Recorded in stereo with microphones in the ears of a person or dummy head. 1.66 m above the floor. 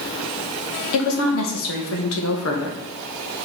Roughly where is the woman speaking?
Left.